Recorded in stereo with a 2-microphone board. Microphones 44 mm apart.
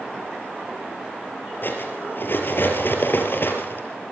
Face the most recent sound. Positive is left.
turn(degrees=55)  # may be behind; listen again after turning